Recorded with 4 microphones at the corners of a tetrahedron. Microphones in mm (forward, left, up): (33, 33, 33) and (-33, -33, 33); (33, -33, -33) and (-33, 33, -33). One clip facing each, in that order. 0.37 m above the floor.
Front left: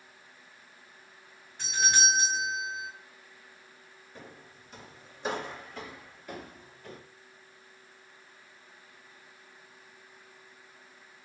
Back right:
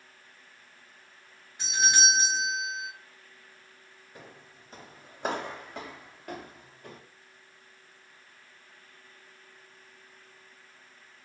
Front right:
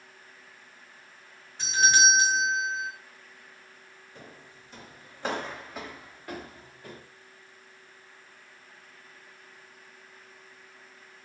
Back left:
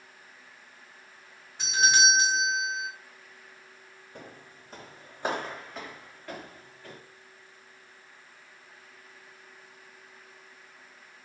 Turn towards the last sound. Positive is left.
turn(degrees=-115)